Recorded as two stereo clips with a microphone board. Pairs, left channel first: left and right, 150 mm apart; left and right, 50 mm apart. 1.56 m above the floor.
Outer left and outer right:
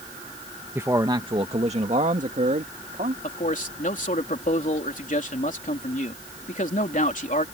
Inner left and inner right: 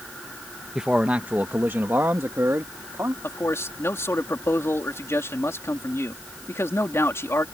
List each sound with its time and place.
0.8 s a man speaking: 15° right (ahead or behind); by 3.1 s 65° right (ahead or behind)
3.2 s a man speaking: 60° left (ahead or behind)